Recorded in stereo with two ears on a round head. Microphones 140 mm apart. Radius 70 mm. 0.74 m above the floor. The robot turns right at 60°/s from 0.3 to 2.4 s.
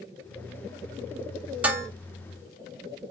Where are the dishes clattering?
10° right (ahead or behind), 1.2 m; by 1.9 s 25° right (ahead or behind), 1.2 m.